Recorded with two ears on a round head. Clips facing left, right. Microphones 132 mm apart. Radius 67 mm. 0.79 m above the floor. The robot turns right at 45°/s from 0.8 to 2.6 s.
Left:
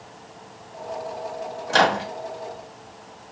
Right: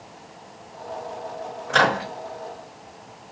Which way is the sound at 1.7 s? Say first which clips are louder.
Left 1 dB; 50° left (ahead or behind).